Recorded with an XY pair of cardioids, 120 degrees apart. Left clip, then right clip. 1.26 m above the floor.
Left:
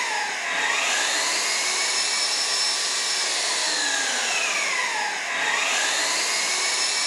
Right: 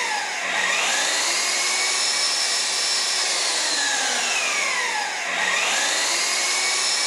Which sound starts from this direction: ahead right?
An engine running, at 0.0 s.